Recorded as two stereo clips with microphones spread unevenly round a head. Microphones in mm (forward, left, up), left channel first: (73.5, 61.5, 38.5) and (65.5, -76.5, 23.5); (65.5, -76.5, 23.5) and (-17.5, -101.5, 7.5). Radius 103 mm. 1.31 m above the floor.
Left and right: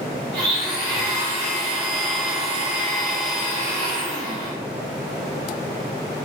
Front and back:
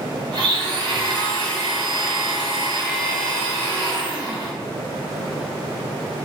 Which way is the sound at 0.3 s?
150° right.